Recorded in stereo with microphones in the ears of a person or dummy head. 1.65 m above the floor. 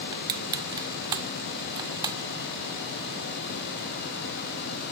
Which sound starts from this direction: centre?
Crushing, at 0.1 s.